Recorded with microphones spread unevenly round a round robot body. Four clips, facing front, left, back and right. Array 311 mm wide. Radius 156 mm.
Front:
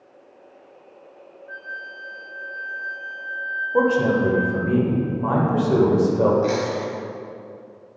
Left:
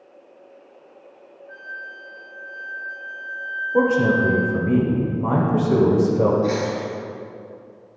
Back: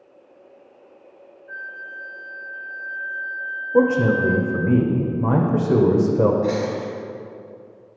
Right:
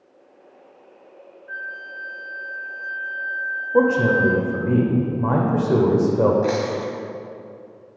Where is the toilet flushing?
I don't hear a toilet flushing.